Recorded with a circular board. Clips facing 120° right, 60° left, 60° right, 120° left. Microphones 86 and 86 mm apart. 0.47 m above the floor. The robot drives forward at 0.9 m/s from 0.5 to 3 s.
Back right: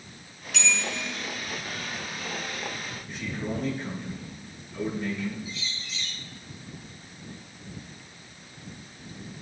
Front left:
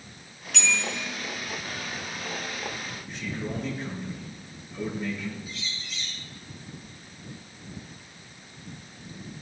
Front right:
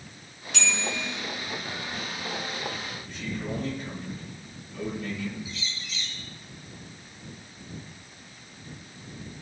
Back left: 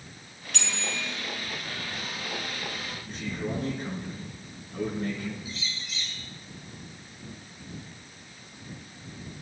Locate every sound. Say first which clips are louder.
0.5 s a bell: even, front right 5 dB; 150° left, 6.5 m
3.1 s a man speaking: back right 1 dB, back left 1 dB; 150° left, 7 m
5.5 s a bird: back right 1 dB, even; 75° left, 3 m